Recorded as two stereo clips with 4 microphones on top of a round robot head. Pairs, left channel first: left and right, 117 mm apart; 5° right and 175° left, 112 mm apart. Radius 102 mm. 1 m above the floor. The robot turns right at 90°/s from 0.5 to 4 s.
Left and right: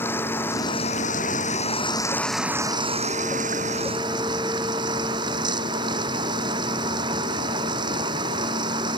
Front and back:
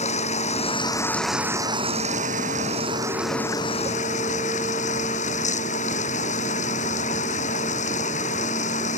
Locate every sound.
0.0 s running water: 15° left; by 9.0 s 30° right